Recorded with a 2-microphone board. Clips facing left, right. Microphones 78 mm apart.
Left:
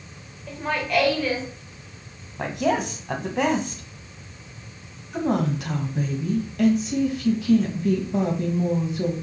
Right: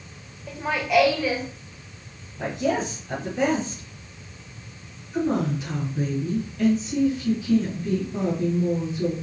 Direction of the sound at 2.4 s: 65° left (ahead or behind).